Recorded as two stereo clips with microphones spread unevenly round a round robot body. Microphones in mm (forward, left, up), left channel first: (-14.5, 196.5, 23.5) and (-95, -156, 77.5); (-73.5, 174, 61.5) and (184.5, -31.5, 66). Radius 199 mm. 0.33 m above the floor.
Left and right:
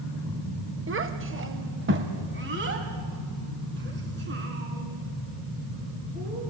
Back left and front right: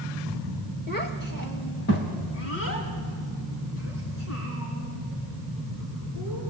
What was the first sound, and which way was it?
A child speaking, 160° right.